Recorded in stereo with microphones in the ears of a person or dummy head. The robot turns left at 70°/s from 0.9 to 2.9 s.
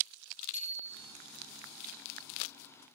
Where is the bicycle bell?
45° left (ahead or behind), 6 m; by 1.1 s 60° left (ahead or behind), 6 m.